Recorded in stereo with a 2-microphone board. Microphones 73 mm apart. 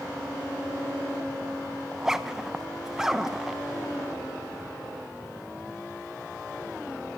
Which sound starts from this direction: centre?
A zipper, at 1.9 s.